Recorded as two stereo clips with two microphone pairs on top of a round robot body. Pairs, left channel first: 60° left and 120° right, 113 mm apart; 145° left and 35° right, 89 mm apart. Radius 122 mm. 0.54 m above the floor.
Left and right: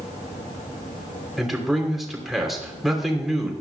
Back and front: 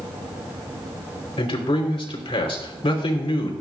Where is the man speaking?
150° left, 3 m.